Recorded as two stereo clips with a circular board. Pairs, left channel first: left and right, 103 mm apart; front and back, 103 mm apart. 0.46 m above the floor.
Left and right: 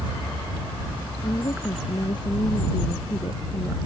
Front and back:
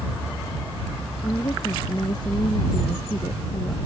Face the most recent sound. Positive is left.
turn(degrees=40)